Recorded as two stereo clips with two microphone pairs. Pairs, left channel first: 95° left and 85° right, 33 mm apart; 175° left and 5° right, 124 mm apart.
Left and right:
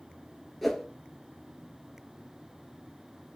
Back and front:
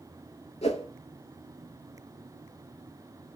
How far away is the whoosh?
About 0.5 m.